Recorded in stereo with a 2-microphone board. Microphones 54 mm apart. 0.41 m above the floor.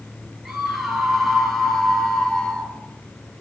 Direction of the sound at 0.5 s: 5° right (ahead or behind).